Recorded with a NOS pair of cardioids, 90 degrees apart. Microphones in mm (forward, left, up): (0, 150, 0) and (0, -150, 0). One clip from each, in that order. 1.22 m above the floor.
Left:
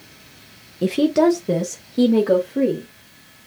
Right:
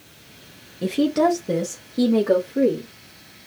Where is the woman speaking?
15° left, 0.6 m.